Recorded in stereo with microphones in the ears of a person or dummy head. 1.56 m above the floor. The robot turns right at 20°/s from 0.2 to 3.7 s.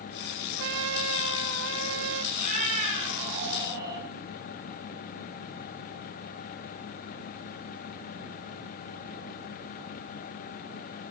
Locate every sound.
0.6 s a trumpet: 105° right, 1.8 m; by 2.2 s 70° right, 1.8 m
2.3 s a cat meowing: 45° right (ahead or behind), 7 m; by 4.0 s 20° right (ahead or behind), 7 m